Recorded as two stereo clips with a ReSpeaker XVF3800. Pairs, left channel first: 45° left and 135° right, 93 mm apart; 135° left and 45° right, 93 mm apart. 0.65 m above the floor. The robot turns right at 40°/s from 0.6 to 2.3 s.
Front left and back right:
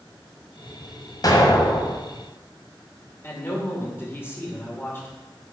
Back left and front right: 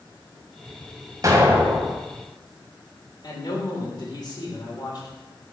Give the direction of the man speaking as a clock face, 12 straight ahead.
8 o'clock.